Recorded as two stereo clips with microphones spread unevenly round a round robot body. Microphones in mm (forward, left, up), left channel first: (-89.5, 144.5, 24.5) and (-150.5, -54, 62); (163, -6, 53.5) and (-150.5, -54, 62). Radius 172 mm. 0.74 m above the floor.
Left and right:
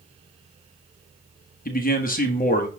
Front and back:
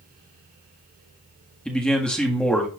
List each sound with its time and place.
1.6 s a man speaking: 95° left, 1.5 m